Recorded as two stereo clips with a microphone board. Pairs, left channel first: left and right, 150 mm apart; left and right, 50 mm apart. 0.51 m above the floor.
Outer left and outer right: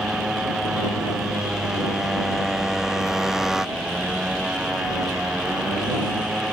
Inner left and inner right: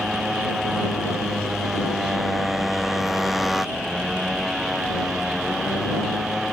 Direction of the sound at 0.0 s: 5° right (ahead or behind).